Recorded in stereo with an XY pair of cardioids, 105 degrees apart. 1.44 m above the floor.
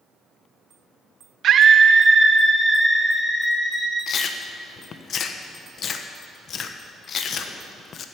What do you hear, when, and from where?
1.4 s a scream: 65° right, 0.6 m; by 4.0 s 10° left, 2 m
4.1 s chewing: 55° left, 1.1 m